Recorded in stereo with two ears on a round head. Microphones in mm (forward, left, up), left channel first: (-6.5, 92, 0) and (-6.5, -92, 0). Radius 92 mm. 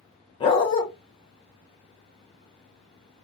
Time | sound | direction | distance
0.4 | a dog barking | 25° left (ahead or behind) | 1.0 m